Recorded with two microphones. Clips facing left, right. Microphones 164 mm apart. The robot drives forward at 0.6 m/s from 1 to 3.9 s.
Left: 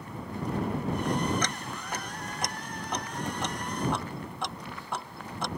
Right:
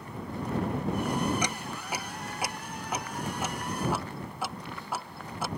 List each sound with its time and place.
1.4 s ticking: 10° right (ahead or behind); by 5.5 s 5° right (ahead or behind)